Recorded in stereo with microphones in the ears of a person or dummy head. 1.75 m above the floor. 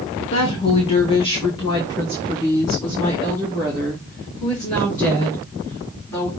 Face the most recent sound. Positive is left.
turn(degrees=15)  # may be behind; listen again after turning